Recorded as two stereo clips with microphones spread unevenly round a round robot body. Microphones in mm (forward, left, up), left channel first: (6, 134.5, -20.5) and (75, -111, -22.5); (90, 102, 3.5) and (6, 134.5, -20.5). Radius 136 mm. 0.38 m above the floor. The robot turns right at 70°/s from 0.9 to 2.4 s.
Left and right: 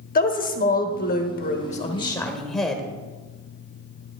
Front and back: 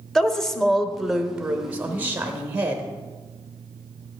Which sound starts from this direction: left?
A woman speaking, at 0.1 s.